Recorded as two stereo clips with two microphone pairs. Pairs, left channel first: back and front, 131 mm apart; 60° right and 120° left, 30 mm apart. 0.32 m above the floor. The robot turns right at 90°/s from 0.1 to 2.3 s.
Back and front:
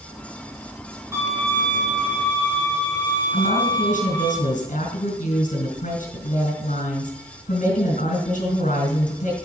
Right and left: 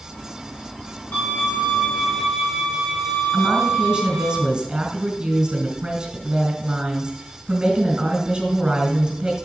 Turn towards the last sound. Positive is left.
turn(degrees=175)